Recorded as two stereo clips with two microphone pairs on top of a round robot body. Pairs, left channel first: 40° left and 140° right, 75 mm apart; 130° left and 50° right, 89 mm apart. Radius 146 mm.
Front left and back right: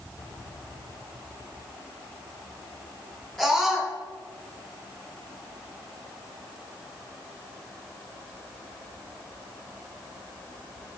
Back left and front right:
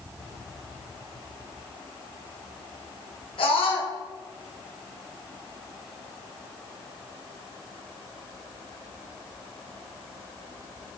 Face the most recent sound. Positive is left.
turn(degrees=125)